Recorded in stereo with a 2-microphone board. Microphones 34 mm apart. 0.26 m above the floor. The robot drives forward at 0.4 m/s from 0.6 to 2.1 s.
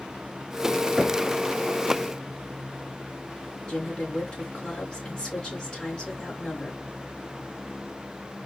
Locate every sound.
1.0 s knocking: 15° right (ahead or behind), 1.0 m
3.7 s a woman speaking: 25° left (ahead or behind), 3.5 m